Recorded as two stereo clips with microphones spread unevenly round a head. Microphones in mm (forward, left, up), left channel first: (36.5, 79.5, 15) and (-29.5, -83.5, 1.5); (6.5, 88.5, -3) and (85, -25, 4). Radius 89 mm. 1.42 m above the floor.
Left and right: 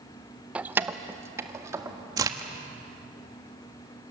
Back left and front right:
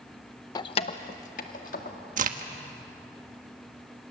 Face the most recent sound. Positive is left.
turn(degrees=-40)